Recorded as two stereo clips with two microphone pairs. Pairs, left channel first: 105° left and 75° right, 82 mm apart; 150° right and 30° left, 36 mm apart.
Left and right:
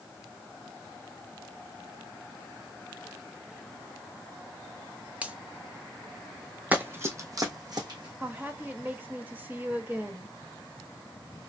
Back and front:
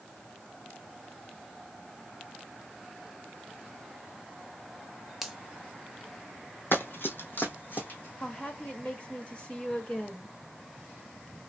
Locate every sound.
5.2 s a finger snap: 30° right, 0.6 m
6.7 s running footsteps: 150° right, 0.8 m; by 8.1 s 110° right, 1.4 m
8.2 s a woman speaking: 120° right, 0.9 m